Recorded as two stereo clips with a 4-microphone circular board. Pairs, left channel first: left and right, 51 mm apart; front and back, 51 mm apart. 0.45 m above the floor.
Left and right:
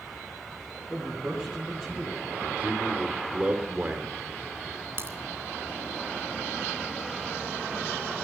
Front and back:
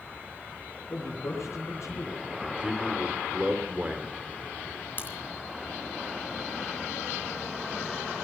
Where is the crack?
50° right, 3 m.